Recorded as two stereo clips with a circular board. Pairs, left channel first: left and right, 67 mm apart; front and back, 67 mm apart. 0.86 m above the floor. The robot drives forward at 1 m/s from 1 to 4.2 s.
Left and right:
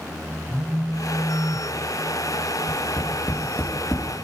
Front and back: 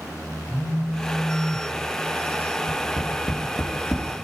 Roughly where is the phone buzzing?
Ahead.